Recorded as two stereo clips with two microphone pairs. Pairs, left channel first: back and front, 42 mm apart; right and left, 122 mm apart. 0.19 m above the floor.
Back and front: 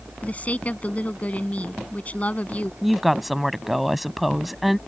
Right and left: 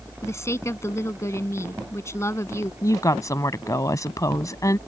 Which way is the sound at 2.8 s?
90° right.